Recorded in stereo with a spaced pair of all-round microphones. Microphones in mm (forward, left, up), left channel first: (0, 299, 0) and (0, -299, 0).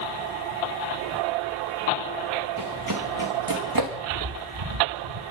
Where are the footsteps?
70° right (ahead or behind), 5 m.